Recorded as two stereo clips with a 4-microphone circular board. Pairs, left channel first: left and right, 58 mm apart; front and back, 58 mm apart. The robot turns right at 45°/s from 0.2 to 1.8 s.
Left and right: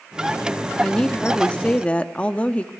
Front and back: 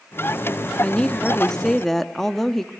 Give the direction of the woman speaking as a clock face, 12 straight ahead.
11 o'clock.